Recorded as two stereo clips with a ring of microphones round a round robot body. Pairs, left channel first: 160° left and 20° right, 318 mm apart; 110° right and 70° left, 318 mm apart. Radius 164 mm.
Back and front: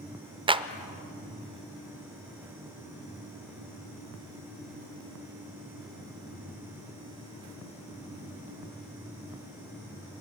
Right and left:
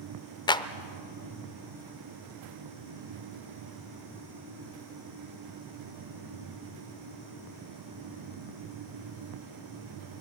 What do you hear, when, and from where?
0.5 s a clap: 65° right, 0.6 m